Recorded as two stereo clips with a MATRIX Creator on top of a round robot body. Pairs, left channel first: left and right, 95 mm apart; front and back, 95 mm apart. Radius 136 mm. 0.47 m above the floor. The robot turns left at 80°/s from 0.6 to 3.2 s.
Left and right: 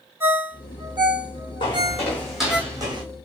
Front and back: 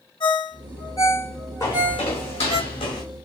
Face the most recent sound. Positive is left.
turn(degrees=-65)